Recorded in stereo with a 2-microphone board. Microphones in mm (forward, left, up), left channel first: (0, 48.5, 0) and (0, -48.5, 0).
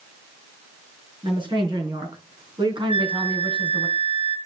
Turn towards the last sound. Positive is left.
turn(degrees=-80)